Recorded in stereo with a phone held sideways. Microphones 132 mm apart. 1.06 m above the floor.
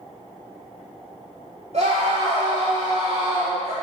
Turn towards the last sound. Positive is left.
turn(degrees=-60)  # may be behind; listen again after turning